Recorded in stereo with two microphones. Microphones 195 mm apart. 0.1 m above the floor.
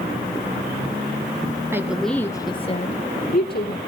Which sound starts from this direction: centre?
A woman speaking, at 1.7 s.